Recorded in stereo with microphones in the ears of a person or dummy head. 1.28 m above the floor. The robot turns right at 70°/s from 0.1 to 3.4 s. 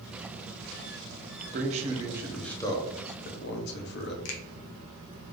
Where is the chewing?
I don't hear chewing.